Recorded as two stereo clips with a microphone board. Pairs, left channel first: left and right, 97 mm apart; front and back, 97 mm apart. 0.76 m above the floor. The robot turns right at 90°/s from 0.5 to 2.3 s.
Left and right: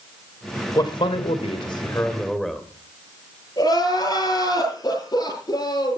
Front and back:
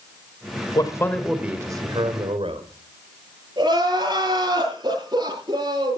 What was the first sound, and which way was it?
A man speaking, 40° left.